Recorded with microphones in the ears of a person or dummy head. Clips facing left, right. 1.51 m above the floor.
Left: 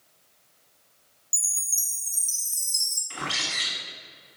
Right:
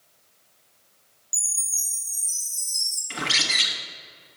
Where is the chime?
20° left (ahead or behind), 1.5 m.